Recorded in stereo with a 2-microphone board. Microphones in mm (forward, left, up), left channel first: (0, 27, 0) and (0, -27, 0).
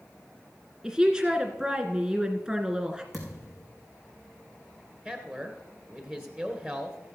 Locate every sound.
0.8 s a woman speaking: 15° right (ahead or behind), 1.9 m
3.1 s a thud: centre (ahead or behind), 4 m
5.0 s a man speaking: 25° right (ahead or behind), 1.7 m